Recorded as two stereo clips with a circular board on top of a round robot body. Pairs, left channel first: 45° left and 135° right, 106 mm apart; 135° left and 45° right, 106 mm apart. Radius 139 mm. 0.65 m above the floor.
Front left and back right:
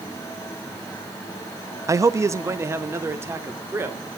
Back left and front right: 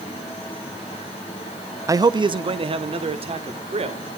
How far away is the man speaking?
About 0.6 m.